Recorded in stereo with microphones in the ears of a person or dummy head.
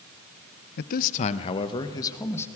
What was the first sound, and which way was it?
A man speaking, 60° left (ahead or behind).